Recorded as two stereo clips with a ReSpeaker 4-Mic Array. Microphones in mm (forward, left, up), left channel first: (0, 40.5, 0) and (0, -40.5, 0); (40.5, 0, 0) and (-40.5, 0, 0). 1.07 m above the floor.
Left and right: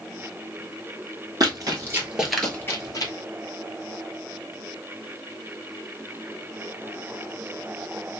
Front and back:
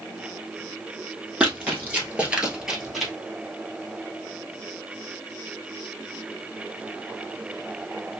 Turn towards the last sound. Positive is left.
turn(degrees=90)